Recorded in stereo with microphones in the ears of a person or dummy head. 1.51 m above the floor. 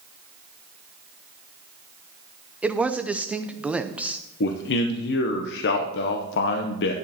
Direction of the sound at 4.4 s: 70° left (ahead or behind).